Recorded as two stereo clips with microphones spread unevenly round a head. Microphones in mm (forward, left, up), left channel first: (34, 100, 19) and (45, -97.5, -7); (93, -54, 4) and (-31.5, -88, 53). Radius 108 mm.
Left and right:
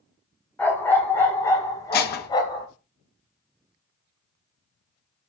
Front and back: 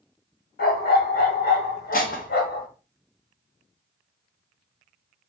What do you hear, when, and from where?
0.6 s a dog barking: 15° left, 4 m; by 2.7 s 30° left, 4.5 m
1.9 s dishes clattering: 75° left, 1.2 m